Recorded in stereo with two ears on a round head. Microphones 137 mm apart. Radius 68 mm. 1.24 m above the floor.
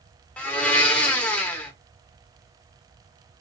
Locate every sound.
0.4 s a blender: 10° left (ahead or behind), 0.9 m